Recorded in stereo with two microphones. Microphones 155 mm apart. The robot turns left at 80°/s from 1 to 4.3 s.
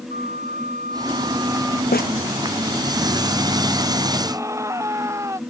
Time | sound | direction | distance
0.1 | a flute | 125° right | ?
1.9 | a snare drum | 80° left | ?
4.2 | a scream | 15° right (ahead or behind) | ?